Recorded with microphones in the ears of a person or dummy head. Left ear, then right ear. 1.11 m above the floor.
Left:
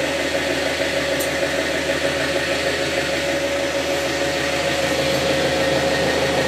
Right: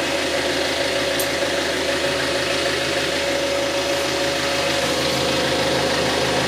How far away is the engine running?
About 1.0 m.